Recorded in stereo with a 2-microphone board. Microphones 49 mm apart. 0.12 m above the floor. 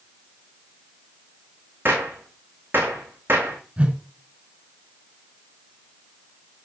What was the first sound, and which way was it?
A gunshot, 40° right (ahead or behind).